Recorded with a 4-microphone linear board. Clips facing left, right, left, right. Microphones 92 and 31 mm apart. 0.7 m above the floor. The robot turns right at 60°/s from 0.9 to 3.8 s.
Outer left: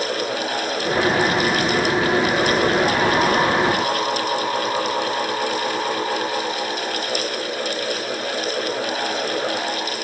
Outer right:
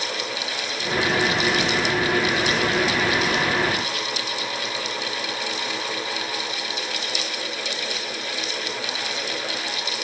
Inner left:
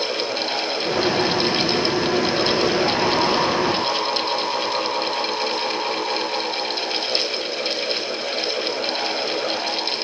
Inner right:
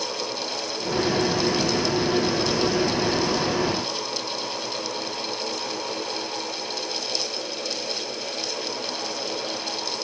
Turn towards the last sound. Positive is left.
No sound to turn to.